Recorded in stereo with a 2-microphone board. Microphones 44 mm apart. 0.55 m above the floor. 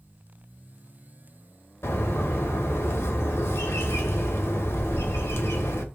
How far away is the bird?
About 0.9 m.